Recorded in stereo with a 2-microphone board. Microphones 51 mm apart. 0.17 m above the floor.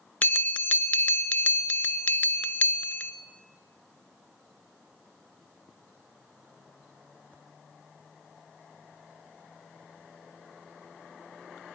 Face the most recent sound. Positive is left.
turn(degrees=30)  # may be behind; listen again after turning